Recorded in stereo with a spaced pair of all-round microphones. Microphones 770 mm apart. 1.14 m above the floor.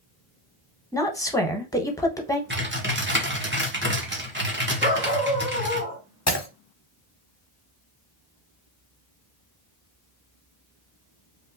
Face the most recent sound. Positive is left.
turn(degrees=20)  # may be behind; listen again after turning